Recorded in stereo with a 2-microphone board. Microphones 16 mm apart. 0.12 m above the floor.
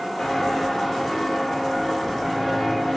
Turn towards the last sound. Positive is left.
turn(degrees=20)  # may be behind; listen again after turning